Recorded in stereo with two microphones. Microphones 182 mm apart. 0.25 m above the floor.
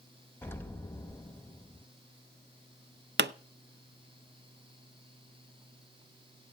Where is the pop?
70° right (ahead or behind), 0.5 m.